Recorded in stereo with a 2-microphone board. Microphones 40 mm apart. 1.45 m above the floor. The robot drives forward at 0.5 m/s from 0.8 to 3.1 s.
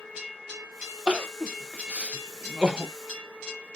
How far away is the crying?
About 0.7 m.